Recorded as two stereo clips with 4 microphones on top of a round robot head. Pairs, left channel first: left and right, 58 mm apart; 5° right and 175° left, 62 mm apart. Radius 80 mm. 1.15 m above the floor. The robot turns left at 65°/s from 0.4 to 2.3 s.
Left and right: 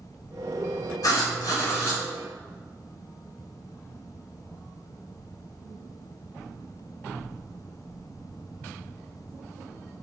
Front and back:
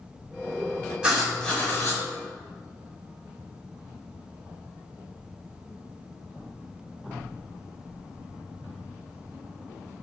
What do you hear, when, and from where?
1.0 s writing: 100° left, 1.0 m; by 2.0 s 35° left, 1.0 m